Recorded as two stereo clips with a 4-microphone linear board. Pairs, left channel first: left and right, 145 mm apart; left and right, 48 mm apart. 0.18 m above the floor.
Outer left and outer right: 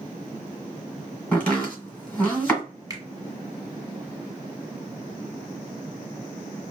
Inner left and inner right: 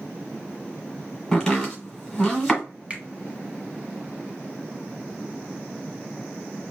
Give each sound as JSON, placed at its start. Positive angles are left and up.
{"t": 1.3, "sound": "chopping", "side_deg": 10, "distance_m": 1.5}
{"t": 2.9, "sound": "a finger snap", "side_deg": -25, "distance_m": 0.9}